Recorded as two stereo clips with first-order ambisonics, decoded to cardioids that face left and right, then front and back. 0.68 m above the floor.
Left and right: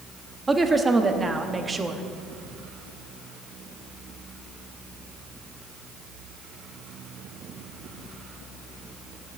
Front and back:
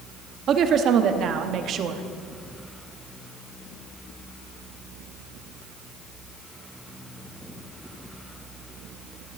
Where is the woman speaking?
160° right, 0.9 m.